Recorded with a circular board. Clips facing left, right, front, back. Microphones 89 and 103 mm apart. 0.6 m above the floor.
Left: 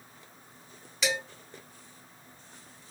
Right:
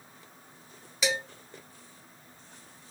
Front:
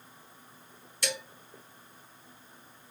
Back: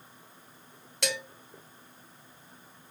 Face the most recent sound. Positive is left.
turn(degrees=-175)